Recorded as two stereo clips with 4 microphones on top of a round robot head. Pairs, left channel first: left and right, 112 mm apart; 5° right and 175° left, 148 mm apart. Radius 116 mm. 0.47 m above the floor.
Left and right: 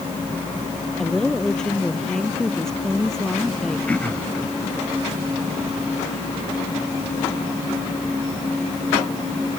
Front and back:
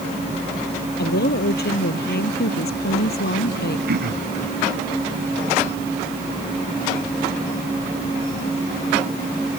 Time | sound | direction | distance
1.0 | a woman speaking | 5° left | ?
3.9 | throat clearing | 165° left | ?